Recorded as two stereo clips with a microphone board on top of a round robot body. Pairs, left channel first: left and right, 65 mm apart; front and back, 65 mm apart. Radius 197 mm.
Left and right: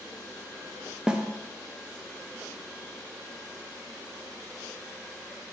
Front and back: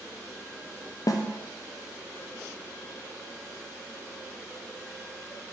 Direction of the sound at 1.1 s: 10° right.